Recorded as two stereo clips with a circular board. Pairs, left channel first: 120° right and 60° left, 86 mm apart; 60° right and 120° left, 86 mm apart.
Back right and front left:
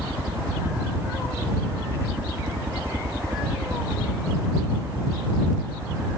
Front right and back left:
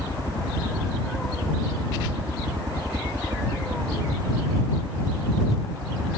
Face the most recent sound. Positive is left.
turn(degrees=120)